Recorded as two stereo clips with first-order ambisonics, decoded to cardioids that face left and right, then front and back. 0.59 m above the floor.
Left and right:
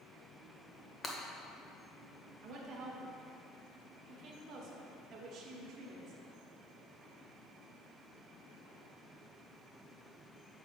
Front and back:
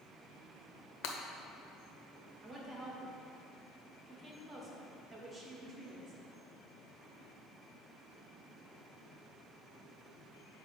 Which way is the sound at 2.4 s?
120° right.